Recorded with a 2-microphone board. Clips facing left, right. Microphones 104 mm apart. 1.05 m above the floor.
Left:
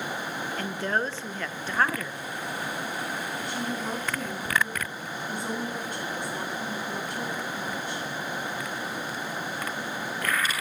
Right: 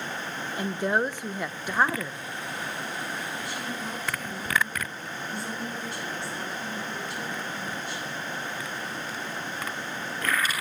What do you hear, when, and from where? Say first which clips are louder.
0.6 s a woman speaking: right 4 dB; 15° right (ahead or behind), 0.8 m
3.5 s a woman speaking: left 3 dB; 45° left (ahead or behind), 8.5 m